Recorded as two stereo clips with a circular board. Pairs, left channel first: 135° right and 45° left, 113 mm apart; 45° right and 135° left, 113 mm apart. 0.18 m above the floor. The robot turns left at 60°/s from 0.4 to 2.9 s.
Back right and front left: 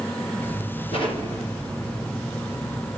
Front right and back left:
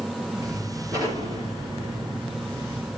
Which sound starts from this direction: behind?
An explosion, at 0.9 s.